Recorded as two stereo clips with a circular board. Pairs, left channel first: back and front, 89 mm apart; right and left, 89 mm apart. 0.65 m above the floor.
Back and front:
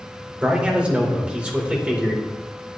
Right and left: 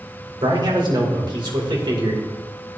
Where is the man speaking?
75° left, 2.5 m.